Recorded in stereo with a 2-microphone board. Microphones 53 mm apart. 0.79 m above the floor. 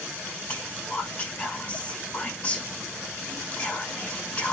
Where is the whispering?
30° left (ahead or behind), 5 m.